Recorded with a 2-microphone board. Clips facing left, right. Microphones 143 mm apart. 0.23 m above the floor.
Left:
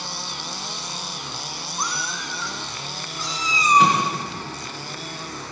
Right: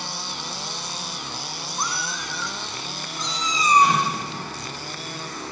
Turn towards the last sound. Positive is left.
turn(degrees=75)  # may be behind; listen again after turning